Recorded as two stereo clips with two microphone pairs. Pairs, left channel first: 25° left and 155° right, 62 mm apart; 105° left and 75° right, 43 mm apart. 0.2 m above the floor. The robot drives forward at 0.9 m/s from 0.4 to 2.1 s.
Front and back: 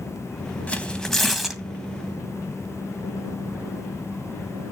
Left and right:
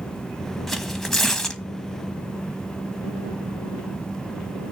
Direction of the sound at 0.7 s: 25° left.